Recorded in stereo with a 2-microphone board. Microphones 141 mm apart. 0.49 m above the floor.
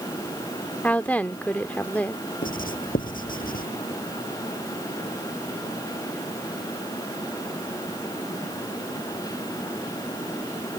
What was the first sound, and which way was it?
A woman speaking, 10° left (ahead or behind).